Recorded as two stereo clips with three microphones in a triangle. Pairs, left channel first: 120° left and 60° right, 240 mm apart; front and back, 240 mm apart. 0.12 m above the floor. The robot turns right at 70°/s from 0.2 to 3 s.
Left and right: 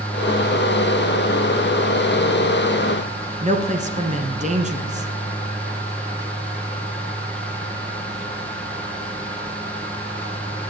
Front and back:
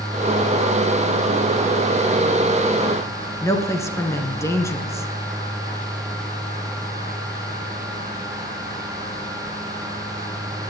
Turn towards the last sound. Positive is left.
turn(degrees=-65)